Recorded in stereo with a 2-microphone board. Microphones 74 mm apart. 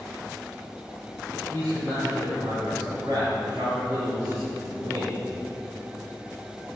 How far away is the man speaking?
About 4.5 m.